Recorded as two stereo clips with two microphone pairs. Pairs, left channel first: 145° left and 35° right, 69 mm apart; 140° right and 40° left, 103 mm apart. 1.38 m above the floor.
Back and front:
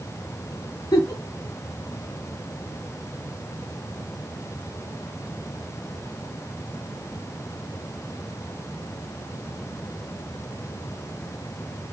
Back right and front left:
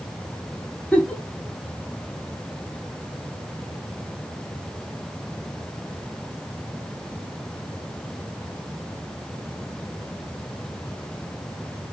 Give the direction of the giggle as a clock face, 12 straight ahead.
7 o'clock.